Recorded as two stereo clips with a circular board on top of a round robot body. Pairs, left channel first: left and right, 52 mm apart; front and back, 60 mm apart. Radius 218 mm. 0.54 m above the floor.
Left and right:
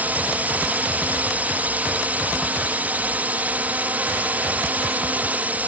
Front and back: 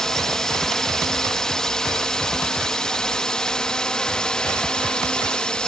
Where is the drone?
75° right; by 5.7 s 65° right.